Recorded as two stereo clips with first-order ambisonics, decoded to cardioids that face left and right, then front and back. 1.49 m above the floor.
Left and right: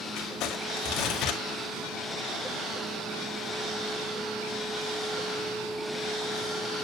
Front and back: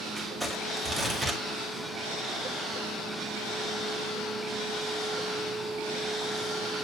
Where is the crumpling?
100° left, 2.0 m.